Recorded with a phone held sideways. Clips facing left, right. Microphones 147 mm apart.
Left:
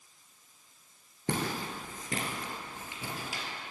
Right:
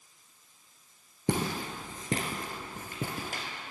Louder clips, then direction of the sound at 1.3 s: Right 2 dB; 15° right (ahead or behind).